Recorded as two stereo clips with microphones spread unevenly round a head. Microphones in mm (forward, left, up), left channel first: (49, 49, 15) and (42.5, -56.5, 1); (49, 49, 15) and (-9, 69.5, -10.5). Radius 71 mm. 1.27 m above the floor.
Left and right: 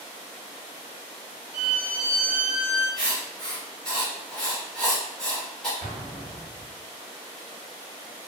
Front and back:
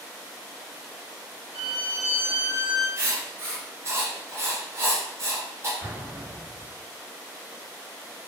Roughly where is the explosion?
Left.